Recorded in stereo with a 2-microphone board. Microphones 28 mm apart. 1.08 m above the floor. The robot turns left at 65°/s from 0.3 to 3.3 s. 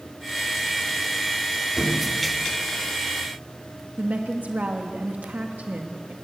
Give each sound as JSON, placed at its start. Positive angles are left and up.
{"t": 1.8, "sound": "a thud", "side_deg": -20, "distance_m": 8.0}
{"t": 4.0, "sound": "a woman speaking", "side_deg": -70, "distance_m": 1.6}